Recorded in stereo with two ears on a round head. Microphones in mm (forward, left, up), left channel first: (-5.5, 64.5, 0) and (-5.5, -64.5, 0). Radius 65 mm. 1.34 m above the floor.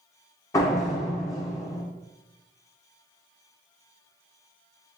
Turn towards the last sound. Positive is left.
turn(degrees=25)  # may be behind; listen again after turning